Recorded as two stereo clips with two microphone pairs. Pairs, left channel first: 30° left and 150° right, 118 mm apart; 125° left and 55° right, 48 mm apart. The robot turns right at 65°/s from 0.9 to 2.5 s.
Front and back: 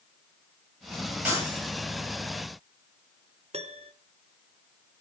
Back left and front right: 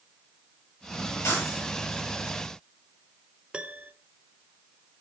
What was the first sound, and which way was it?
Breaking glass, 135° left.